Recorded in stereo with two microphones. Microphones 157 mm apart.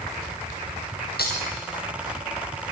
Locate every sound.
1.2 s breaking glass: 80° left, 3 m